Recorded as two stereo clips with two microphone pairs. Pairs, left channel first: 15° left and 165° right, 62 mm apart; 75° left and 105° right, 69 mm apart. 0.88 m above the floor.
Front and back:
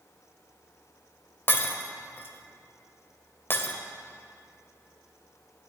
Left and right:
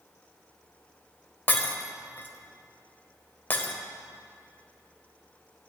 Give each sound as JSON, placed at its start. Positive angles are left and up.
{"t": 1.5, "sound": "breaking glass", "azimuth_deg": 35, "distance_m": 0.7}